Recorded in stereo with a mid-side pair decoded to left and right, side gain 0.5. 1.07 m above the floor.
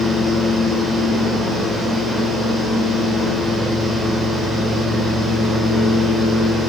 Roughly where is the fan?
Ahead.